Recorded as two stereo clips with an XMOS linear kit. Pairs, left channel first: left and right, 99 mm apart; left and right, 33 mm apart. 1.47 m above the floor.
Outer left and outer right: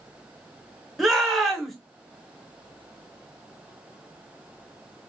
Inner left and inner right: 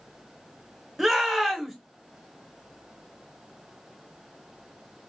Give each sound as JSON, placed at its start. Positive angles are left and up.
{"t": 1.0, "sound": "a shout", "side_deg": 0, "distance_m": 0.9}